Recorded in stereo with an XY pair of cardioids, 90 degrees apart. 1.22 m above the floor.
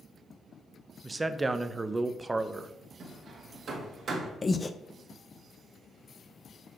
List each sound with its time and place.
1.0 s a man speaking: 25° right, 0.5 m
3.0 s hammering: 55° right, 1.6 m
4.4 s breathing: 25° left, 0.6 m